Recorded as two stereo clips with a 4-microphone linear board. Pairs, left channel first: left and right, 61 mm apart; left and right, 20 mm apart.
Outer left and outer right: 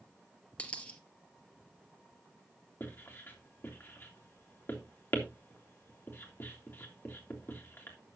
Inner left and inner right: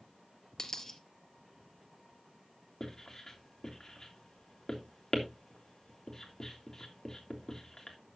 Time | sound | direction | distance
0.6 | a dropped coin | 25° left (ahead or behind) | 1.7 m
2.8 | writing | 35° left (ahead or behind) | 3 m